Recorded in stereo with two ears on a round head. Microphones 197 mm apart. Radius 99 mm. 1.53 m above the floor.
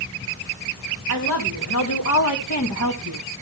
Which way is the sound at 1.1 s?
65° left (ahead or behind).